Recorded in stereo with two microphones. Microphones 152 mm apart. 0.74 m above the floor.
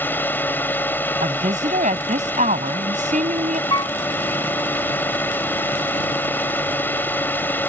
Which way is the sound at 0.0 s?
15° left (ahead or behind).